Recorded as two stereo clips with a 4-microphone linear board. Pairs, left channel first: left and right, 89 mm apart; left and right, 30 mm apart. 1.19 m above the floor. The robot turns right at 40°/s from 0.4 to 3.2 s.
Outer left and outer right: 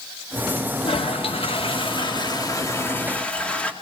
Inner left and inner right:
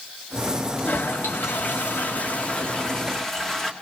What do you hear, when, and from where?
0.8 s a toilet flushing: 75° left, 1.7 m; by 3.7 s 170° left, 1.7 m